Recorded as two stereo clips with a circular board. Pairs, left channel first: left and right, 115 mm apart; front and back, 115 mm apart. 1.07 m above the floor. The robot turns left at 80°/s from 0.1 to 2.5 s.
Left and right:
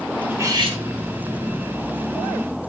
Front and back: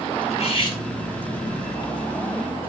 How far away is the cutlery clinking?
About 4.5 m.